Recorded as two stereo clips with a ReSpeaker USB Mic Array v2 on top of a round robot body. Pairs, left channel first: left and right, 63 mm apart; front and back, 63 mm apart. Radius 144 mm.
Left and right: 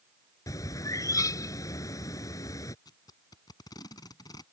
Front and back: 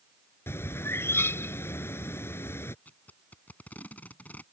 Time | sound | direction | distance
0.5 | a bird | 55° left | ?
2.9 | tape being pulled | 65° left | ?